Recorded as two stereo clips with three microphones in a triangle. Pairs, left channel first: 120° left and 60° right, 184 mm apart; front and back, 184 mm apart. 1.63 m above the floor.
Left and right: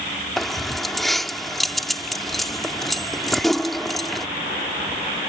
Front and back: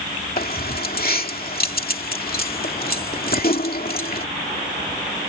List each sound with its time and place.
0.4 s keys jangling: 30° left